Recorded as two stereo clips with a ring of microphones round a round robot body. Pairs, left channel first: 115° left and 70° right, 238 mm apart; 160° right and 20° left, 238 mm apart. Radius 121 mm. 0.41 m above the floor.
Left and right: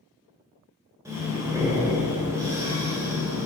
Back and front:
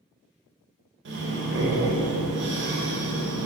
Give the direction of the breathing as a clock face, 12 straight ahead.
12 o'clock.